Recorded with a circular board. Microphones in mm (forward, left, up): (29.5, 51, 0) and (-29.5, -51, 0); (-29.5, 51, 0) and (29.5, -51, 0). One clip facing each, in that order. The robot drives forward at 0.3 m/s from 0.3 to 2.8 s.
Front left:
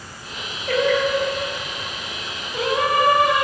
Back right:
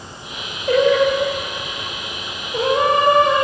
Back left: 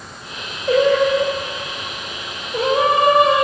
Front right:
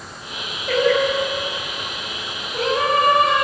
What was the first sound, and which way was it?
Singing, 170° left.